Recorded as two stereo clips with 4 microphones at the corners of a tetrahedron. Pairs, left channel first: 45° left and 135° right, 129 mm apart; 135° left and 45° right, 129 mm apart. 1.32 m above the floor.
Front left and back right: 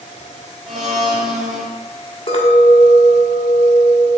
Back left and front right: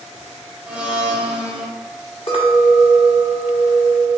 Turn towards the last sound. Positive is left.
turn(degrees=90)